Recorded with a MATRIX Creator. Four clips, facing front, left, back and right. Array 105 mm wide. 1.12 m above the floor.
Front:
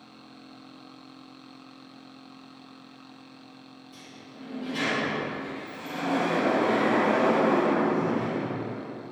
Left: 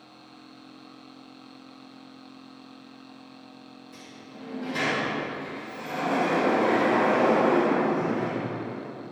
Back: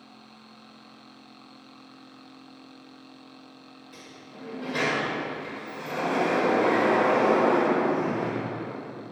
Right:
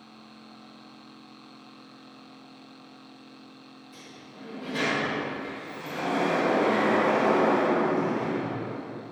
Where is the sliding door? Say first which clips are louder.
Left 1 dB, back 2 dB; 170° left, 4.5 m.